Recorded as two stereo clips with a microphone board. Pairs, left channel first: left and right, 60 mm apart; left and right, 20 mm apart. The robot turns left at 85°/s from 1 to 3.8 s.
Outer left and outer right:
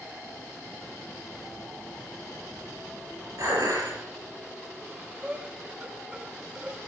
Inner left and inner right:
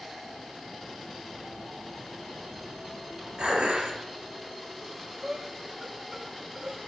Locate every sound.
3.4 s dishes clattering: 60° right, 5.5 m; by 4.0 s 95° right, 5.5 m
4.8 s breathing: 20° right (ahead or behind), 1.1 m